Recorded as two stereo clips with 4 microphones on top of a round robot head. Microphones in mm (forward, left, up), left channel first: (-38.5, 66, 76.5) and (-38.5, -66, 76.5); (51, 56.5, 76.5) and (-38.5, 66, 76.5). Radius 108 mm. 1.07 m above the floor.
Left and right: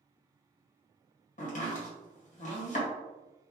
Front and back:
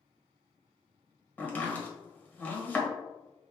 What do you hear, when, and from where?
1.4 s chopping: 70° left, 1.7 m